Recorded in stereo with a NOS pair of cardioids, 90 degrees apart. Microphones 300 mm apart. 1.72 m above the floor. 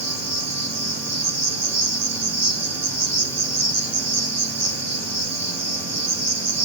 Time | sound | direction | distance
0.0 | an insect | 60° right | 3 m